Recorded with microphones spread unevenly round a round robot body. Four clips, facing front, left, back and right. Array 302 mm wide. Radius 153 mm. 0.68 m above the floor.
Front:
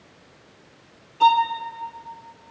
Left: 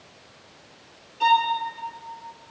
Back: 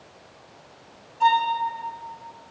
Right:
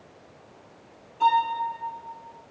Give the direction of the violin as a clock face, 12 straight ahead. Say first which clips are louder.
Left 1 dB, front 3 dB; 12 o'clock.